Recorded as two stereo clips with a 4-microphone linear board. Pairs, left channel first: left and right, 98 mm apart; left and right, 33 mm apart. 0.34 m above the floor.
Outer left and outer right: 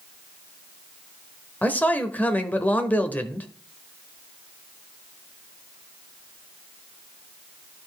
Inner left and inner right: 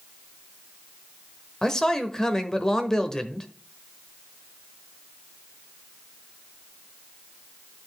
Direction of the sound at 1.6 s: 15° left (ahead or behind).